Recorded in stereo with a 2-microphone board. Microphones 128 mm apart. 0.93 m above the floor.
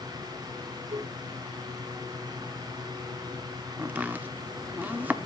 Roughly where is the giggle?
Right.